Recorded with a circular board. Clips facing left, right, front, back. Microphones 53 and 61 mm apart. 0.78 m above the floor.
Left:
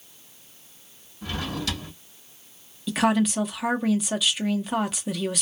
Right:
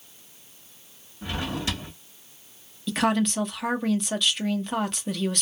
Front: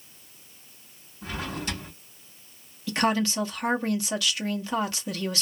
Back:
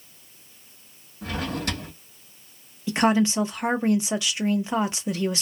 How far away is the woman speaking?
About 0.6 m.